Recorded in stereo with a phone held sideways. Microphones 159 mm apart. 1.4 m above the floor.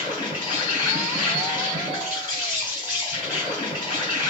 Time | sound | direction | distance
0.0 | an insect | 25° left (ahead or behind) | 1.9 m